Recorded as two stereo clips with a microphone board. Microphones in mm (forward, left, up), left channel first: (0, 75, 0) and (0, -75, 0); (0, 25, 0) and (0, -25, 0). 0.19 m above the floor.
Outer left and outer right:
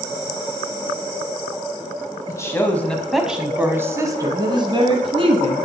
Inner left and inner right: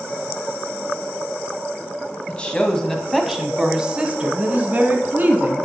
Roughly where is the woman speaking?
Left.